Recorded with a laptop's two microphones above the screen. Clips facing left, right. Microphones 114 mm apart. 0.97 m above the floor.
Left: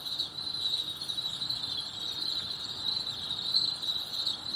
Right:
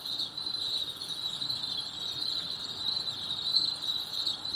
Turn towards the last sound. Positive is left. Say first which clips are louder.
# even
turn(degrees=-60)  # may be behind; listen again after turning